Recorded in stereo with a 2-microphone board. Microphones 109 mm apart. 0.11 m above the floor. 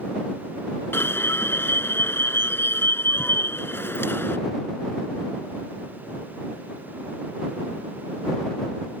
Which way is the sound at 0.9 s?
20° left (ahead or behind).